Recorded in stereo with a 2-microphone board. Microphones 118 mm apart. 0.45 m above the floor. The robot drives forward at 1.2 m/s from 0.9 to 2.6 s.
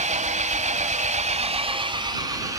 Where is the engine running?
80° right, 1.1 m; by 2.6 s 30° right (ahead or behind), 2 m.